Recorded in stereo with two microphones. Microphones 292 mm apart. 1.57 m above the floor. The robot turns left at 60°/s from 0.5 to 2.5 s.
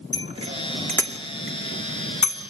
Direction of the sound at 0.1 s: 20° right (ahead or behind).